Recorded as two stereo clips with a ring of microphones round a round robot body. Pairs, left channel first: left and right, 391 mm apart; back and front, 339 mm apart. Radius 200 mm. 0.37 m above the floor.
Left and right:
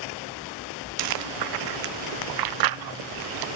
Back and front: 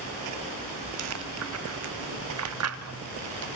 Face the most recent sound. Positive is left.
turn(degrees=-50)